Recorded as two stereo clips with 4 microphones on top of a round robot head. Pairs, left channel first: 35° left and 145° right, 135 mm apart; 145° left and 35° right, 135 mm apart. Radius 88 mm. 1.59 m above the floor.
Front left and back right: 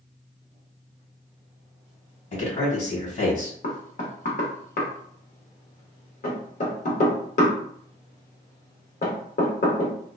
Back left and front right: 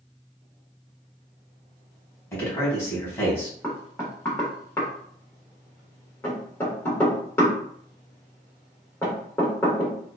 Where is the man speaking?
70° left, 1.9 m.